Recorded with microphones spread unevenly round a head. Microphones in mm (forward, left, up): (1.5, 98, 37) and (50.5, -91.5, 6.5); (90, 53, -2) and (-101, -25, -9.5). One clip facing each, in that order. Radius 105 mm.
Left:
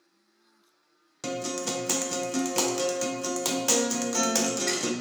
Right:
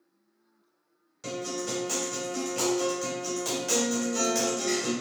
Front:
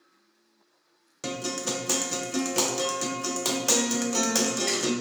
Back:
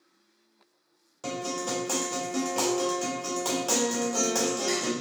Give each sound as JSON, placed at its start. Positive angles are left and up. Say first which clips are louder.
{"t": 1.2, "sound": "a guitar", "louder": "left 2 dB, even", "azimuth_deg": 85, "distance_m": 0.5}